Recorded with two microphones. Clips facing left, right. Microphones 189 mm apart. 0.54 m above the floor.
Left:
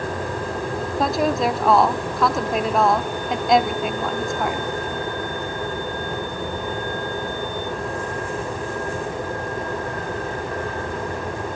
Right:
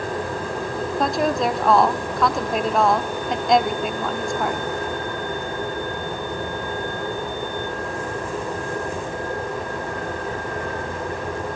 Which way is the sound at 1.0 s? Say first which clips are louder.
Left 1 dB; centre (ahead or behind).